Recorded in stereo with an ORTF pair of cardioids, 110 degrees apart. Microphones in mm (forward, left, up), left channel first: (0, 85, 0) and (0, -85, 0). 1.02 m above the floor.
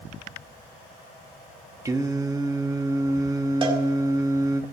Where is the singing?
20° right, 1.0 m.